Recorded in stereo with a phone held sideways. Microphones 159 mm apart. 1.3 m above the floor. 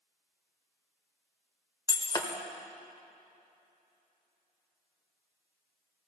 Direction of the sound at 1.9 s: 25° left (ahead or behind).